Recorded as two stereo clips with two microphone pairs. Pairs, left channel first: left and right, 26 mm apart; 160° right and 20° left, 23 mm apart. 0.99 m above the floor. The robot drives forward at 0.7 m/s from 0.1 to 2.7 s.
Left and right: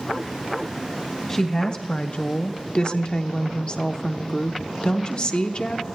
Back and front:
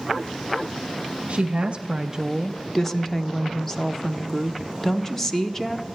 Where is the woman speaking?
30° left, 0.9 m; by 5.9 s 130° left, 0.6 m.